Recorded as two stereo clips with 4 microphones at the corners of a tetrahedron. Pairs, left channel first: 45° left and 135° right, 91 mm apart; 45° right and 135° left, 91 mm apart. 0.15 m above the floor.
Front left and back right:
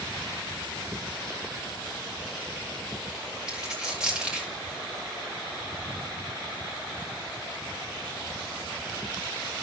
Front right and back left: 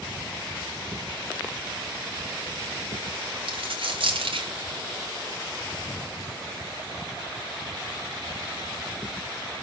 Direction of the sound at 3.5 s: 145° left.